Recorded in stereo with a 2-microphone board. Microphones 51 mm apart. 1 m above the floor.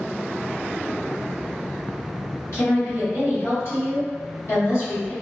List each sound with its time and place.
2.5 s a woman speaking: 70° left (ahead or behind), 1.6 m